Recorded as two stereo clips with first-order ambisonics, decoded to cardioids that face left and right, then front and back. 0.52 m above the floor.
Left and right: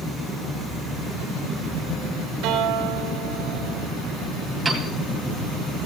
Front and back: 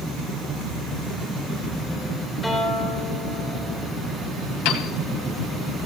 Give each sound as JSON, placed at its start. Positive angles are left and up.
{"t": 2.4, "sound": "a guitar", "azimuth_deg": -85, "distance_m": 3.5}
{"t": 4.7, "sound": "a piano", "azimuth_deg": -5, "distance_m": 2.0}